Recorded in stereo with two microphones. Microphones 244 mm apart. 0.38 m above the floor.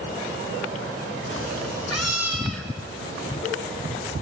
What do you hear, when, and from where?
1.3 s a cat meowing: 55° left (ahead or behind), 0.7 m; by 3.3 s 75° left (ahead or behind), 3.5 m